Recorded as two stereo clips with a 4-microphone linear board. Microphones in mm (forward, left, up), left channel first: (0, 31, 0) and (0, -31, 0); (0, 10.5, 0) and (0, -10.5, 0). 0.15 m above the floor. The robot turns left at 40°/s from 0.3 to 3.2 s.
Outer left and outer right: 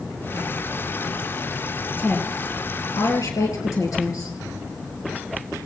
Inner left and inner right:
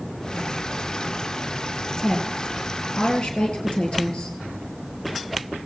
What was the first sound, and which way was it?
A woman speaking, 150° left.